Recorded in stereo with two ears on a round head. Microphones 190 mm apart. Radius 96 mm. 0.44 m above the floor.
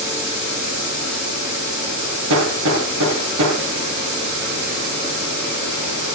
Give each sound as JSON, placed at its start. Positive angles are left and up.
{"t": 2.3, "sound": "hammering", "side_deg": -80, "distance_m": 7.0}